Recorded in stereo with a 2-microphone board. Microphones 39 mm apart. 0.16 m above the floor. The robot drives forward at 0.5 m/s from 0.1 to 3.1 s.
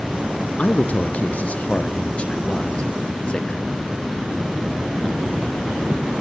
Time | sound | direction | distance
0.6 | a man speaking | 40° left (ahead or behind) | 2 m